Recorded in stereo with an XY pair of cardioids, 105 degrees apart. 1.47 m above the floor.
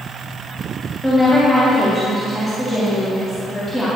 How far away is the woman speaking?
About 3 m.